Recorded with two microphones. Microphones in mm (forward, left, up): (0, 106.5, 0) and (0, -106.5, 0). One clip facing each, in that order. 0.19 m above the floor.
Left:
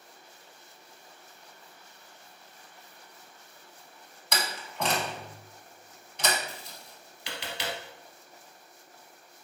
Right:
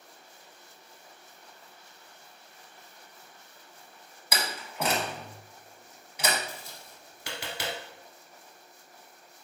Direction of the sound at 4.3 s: 5° right (ahead or behind).